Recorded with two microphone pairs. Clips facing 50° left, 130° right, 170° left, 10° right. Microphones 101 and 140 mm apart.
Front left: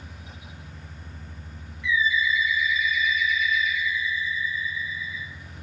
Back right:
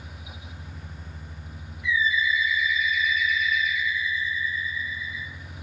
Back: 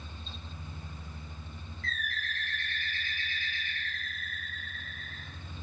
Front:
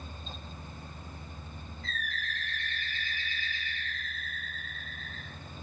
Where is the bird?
170° right, 0.7 m.